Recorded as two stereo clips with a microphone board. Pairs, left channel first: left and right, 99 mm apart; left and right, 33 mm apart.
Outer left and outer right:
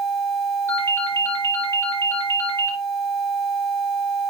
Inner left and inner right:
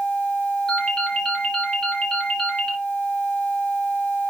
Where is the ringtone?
25° left (ahead or behind), 4 m.